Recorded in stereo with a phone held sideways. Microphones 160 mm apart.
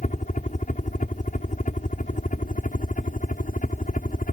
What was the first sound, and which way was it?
A helicopter, 50° left (ahead or behind).